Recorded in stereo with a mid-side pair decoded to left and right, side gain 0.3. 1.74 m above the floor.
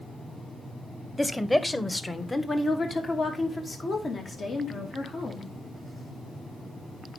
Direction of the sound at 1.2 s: 10° left.